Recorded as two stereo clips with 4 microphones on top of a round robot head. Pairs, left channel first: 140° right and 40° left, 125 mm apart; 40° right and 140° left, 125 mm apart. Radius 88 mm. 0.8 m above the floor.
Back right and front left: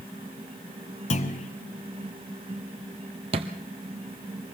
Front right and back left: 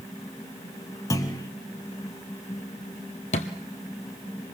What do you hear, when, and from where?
1.1 s a clunk: 105° right, 1.7 m
3.3 s a thud: 5° right, 1.5 m